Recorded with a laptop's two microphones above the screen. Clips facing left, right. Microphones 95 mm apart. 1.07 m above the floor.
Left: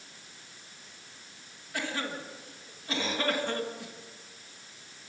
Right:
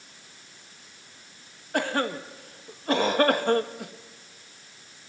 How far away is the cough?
About 1.7 m.